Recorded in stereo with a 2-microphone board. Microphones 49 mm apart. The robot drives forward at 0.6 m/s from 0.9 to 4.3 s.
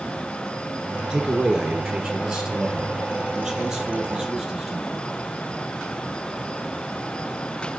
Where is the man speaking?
15° right (ahead or behind), 1.8 m; by 5.0 s 10° right (ahead or behind), 3.5 m.